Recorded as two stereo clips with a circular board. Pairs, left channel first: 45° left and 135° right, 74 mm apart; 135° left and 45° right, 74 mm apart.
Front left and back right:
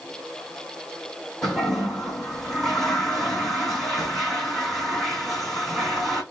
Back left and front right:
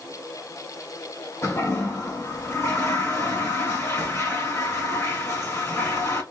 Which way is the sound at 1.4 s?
130° left.